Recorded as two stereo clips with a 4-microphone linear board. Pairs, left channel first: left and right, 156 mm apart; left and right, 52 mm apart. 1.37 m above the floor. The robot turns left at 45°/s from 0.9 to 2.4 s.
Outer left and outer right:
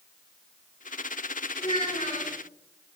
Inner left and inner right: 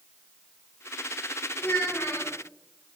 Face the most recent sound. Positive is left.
turn(degrees=115)